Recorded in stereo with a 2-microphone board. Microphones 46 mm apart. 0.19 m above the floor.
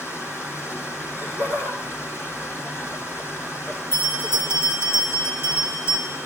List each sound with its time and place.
0.0 s running water: 65° left (ahead or behind), 4.5 m
1.0 s laughter: 60° left (ahead or behind), 3.5 m
3.9 s a bell: 60° left (ahead or behind), 5 m